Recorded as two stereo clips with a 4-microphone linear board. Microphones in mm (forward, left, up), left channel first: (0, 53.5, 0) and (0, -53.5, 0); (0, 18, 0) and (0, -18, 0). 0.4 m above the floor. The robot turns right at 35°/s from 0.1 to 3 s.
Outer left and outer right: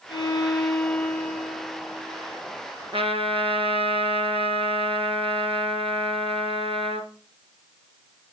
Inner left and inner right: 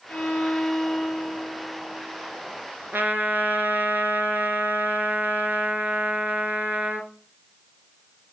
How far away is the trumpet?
About 1.8 m.